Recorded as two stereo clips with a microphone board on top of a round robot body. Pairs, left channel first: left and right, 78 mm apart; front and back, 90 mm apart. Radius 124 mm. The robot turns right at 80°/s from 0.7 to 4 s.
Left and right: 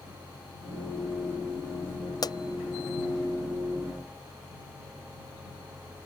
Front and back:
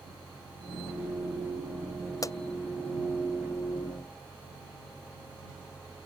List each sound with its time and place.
2.2 s a pop: 50° left; by 2.4 s 65° left